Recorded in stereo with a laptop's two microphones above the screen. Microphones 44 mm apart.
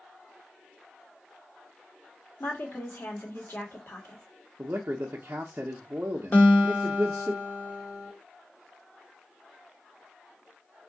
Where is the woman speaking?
55° left (ahead or behind), 1.6 m.